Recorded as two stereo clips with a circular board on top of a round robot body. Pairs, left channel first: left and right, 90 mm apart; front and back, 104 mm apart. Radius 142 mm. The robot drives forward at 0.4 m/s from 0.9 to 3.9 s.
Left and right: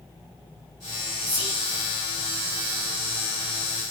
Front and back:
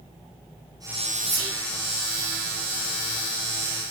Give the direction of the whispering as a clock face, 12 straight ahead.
7 o'clock.